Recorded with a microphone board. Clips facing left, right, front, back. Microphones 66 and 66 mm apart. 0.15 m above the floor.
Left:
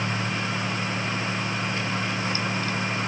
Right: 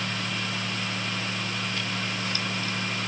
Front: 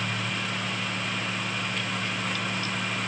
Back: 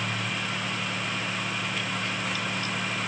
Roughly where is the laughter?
No laughter in this recording.